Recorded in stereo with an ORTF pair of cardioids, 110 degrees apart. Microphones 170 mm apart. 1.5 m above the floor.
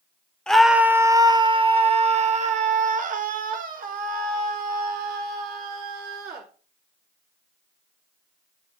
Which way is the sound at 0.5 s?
5° left.